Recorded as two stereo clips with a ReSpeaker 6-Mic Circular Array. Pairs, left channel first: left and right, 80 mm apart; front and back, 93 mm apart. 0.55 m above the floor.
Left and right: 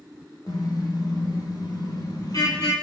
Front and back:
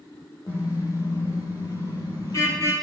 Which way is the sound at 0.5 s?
50° left.